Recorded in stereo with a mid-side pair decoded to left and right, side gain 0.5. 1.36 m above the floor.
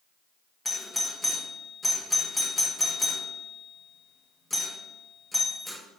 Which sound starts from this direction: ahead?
A doorbell, at 0.7 s.